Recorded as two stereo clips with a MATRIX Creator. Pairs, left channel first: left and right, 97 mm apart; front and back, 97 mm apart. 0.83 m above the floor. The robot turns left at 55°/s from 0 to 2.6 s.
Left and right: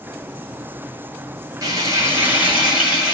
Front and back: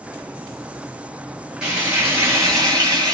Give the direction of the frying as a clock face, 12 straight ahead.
3 o'clock.